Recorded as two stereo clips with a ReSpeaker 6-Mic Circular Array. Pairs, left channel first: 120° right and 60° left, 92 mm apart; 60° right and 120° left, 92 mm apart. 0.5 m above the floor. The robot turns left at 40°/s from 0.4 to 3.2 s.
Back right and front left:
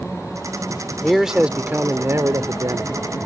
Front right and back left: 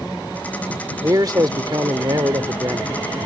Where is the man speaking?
155° left; by 3.2 s 65° left.